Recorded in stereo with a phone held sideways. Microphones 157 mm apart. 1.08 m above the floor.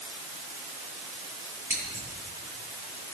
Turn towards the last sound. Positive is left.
turn(degrees=-15)  # may be behind; listen again after turning